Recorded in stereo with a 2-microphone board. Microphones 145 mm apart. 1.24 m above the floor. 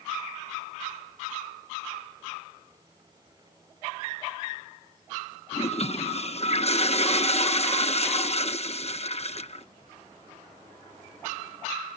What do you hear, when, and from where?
5.5 s a toilet flushing: 50° left (ahead or behind)